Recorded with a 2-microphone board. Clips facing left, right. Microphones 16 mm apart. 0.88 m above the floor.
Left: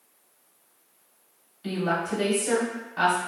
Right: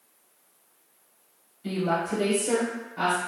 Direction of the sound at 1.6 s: 35° left (ahead or behind).